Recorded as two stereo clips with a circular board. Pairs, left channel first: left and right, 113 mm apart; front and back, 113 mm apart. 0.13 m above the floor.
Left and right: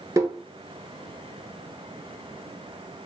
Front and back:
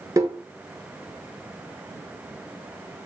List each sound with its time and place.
0.2 s tapping: 135° right, 0.8 m